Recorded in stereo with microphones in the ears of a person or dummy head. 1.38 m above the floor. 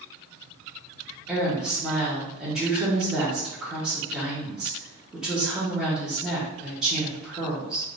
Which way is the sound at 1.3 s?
Centre (ahead or behind).